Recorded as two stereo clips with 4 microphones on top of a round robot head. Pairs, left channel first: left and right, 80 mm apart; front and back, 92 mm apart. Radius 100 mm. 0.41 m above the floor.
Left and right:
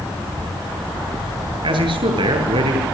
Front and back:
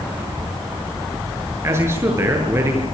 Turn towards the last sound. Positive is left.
turn(degrees=-115)